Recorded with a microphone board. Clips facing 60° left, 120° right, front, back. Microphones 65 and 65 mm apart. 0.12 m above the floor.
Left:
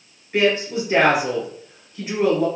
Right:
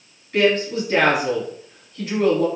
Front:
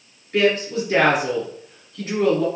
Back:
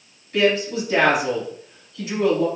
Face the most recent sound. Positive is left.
turn(degrees=0)